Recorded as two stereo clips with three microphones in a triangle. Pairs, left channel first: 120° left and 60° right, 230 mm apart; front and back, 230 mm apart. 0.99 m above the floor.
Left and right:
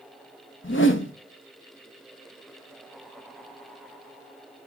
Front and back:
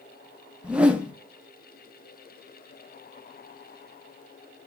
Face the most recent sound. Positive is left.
turn(degrees=95)